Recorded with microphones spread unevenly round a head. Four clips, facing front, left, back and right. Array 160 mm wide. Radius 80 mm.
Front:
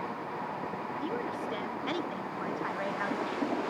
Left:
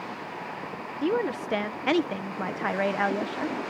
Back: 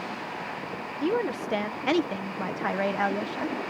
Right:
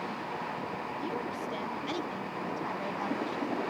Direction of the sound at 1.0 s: 130° left.